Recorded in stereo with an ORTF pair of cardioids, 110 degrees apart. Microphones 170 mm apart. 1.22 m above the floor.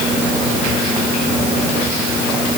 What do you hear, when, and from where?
Only background noise.